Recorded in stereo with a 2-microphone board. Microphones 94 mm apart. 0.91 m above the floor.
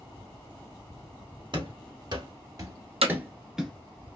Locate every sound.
1.5 s running footsteps: 55° right (ahead or behind), 1.5 m; by 3.7 s centre (ahead or behind), 0.8 m
3.0 s hammering: 85° right, 0.8 m